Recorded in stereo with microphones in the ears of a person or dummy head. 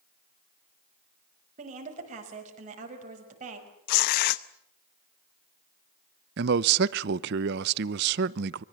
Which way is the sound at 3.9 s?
50° left (ahead or behind).